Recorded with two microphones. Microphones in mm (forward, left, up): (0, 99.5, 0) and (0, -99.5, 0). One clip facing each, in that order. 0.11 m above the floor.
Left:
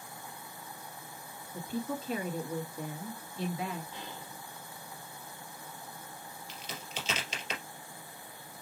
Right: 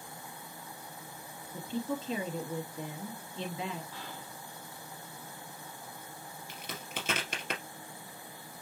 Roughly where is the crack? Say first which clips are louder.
Right 2 dB; right.